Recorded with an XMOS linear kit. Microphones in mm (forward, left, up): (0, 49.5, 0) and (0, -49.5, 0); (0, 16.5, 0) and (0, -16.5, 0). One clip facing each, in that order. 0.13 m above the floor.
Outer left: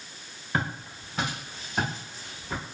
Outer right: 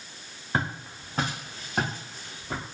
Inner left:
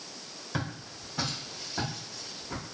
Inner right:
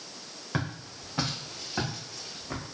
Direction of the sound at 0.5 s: 25° right (ahead or behind).